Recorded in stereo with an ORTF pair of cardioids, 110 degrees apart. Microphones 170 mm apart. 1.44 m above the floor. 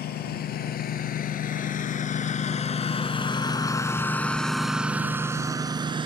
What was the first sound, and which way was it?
A lawn mower, 70° left.